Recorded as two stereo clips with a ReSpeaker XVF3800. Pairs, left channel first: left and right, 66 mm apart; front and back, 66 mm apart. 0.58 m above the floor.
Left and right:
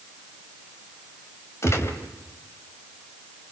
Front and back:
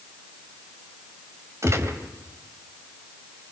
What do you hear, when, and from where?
1.6 s a gunshot: 135° left, 1.9 m